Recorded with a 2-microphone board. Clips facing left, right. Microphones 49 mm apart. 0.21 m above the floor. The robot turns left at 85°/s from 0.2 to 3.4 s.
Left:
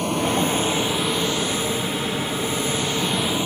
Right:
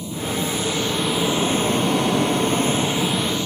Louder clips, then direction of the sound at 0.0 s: Left 4 dB; 75° left.